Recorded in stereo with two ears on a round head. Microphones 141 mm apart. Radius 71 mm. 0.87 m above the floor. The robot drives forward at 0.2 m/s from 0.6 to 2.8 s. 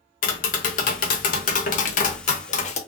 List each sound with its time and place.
0.2 s tapping: 55° left (ahead or behind), 0.7 m; by 2.8 s 45° left (ahead or behind), 0.8 m